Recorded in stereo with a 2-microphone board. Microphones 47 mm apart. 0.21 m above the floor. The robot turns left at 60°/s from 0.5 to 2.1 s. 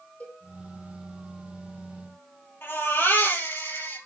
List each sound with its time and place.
0.2 s a cowbell: 30° left (ahead or behind), 3 m
2.6 s a baby crying: 55° left (ahead or behind), 4.5 m